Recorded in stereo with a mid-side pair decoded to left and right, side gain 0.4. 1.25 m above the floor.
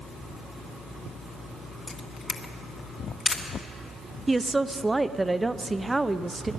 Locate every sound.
1.9 s a camera shutter: 40° left, 1.7 m
4.3 s a woman speaking: 20° right, 0.7 m